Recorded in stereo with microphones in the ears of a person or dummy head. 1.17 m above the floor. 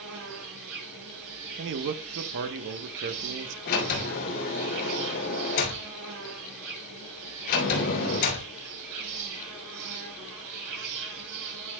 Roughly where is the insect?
Right.